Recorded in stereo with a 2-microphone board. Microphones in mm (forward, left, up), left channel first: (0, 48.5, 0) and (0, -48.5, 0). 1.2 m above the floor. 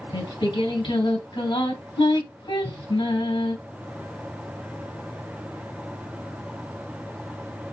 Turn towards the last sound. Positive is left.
turn(degrees=50)  # may be behind; listen again after turning